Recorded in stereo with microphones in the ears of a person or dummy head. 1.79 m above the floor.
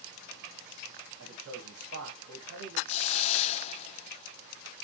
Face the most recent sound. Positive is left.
turn(degrees=35)  # may be behind; listen again after turning